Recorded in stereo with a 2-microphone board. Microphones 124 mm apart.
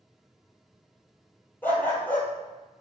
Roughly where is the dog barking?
Centre.